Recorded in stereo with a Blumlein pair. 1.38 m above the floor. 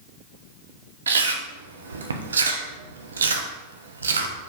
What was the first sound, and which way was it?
Chewing, 70° right.